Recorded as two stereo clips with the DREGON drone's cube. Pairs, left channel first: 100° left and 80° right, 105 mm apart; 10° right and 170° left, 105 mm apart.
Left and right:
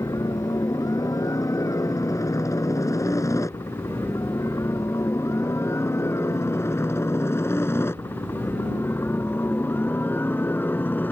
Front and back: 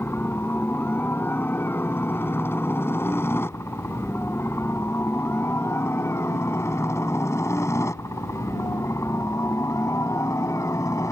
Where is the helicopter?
55° left; by 11.1 s 35° left.